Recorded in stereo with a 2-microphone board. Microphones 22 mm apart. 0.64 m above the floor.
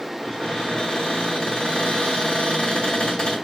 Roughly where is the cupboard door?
Left.